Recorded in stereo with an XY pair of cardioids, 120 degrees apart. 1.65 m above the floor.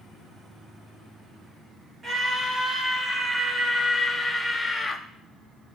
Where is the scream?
20° right, 3 m; by 5.0 s 20° left, 1.3 m.